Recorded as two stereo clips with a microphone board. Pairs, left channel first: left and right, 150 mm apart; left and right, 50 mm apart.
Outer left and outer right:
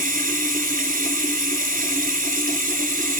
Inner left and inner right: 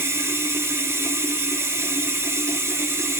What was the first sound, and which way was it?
Running water, 70° right (ahead or behind).